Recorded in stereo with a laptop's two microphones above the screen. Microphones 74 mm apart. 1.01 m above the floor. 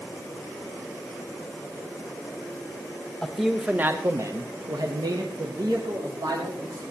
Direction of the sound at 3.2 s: 10° left (ahead or behind).